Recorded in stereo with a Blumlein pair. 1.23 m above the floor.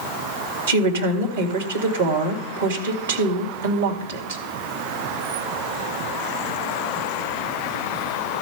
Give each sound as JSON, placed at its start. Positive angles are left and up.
{"t": 0.7, "sound": "a woman speaking", "azimuth_deg": -65, "distance_m": 2.0}